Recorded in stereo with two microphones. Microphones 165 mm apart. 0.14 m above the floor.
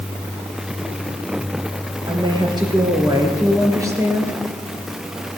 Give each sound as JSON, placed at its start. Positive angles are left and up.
{"t": 2.1, "sound": "a woman speaking", "side_deg": -30, "distance_m": 3.5}